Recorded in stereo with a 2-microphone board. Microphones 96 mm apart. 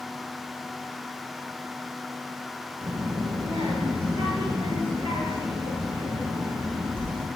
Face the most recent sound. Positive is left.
turn(degrees=-75)  # may be behind; listen again after turning